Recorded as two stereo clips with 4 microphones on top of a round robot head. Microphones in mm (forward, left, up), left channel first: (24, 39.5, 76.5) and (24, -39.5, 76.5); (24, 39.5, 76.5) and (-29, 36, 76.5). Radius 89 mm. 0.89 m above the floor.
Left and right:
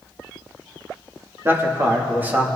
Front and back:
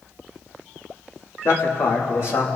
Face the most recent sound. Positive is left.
turn(degrees=-20)